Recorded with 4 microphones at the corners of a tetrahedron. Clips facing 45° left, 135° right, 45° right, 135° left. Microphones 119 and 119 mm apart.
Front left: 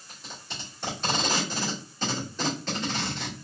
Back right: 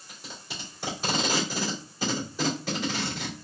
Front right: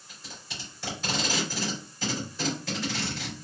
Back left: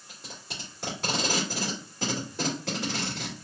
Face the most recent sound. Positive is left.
turn(degrees=145)